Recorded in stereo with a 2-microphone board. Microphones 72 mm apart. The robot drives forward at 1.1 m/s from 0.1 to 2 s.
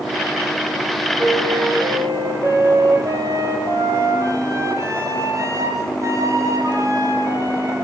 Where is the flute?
50° right (ahead or behind), 7 m; by 7.8 s 45° right (ahead or behind), 7.5 m.